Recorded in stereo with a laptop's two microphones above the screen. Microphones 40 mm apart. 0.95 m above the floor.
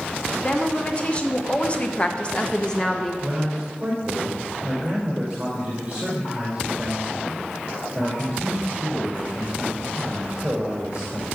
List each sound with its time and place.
0.4 s a woman speaking: 30° left (ahead or behind), 1.8 m; by 3.1 s 10° left (ahead or behind), 0.8 m
3.2 s a man speaking: 25° right (ahead or behind), 3 m